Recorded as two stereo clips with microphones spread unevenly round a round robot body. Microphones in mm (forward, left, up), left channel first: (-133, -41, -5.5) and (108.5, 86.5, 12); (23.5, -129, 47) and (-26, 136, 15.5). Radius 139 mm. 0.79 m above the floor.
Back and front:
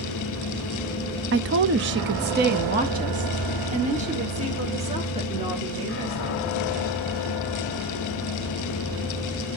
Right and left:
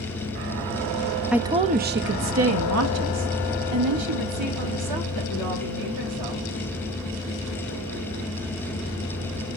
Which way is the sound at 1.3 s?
25° left.